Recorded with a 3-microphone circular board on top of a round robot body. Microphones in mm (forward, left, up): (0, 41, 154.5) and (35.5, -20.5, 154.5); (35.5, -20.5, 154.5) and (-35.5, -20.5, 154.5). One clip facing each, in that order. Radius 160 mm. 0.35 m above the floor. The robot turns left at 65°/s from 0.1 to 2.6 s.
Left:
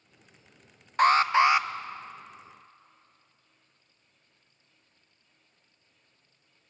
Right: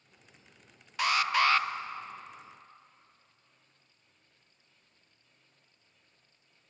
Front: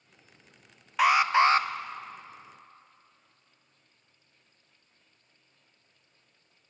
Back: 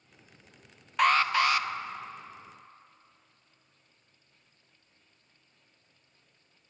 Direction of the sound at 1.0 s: 85° left.